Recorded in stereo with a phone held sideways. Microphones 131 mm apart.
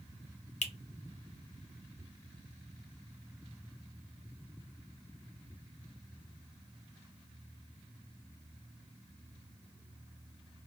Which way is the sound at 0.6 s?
75° left (ahead or behind).